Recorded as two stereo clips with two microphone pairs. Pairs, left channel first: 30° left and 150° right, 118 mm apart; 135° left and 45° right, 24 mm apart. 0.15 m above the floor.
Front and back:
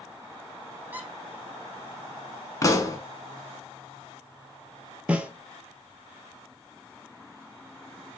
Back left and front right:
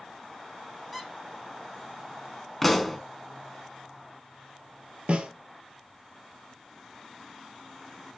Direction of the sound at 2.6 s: 60° left.